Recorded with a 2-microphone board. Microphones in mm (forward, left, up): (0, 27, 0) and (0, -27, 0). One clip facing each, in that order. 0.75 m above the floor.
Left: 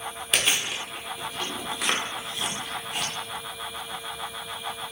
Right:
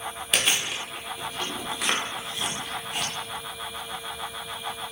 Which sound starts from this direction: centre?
Chewing, at 0.3 s.